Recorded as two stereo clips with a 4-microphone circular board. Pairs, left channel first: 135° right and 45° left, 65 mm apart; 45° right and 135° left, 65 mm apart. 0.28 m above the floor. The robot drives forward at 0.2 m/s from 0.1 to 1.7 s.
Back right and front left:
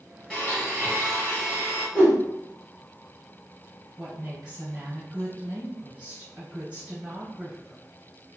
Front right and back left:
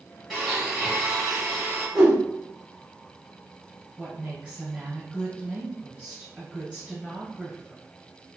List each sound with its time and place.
0.3 s a blender: 145° right, 1.3 m; by 1.9 s 160° right, 1.4 m
1.9 s a whoosh: 155° right, 1.1 m
4.0 s a woman speaking: 100° left, 1.3 m